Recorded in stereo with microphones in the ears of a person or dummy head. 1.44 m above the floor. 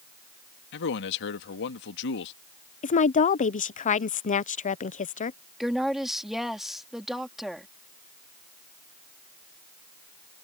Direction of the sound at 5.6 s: Centre (ahead or behind).